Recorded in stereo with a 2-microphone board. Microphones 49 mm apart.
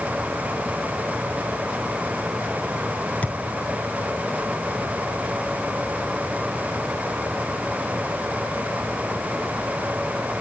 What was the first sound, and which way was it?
A thud, 30° left (ahead or behind).